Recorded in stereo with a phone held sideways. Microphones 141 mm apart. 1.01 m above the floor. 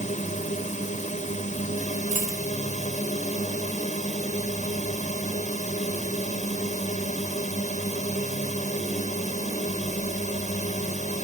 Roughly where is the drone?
Left.